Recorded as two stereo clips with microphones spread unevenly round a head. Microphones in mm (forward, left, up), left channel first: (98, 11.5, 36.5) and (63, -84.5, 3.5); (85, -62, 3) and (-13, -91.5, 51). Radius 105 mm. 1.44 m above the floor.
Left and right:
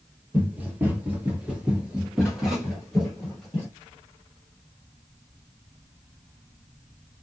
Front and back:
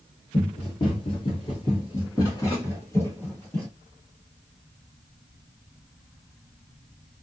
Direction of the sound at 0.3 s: 25° right.